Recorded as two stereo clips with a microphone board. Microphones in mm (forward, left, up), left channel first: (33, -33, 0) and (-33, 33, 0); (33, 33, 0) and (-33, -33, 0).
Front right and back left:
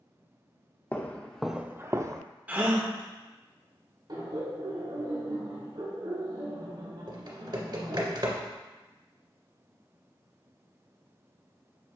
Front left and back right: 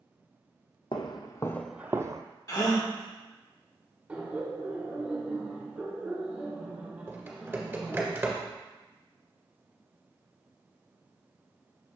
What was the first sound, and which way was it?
Footsteps, 25° left.